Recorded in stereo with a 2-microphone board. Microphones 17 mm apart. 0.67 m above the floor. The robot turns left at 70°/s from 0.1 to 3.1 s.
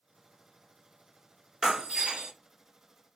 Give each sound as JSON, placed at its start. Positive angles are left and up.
{"t": 1.6, "sound": "breaking glass", "azimuth_deg": -60, "distance_m": 2.0}